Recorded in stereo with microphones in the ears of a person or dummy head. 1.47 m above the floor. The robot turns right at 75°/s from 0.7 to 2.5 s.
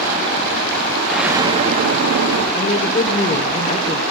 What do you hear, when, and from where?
1.1 s an explosion: 175° left, 0.7 m; by 2.5 s 85° right, 0.7 m
2.5 s a woman speaking: 40° left (ahead or behind), 0.8 m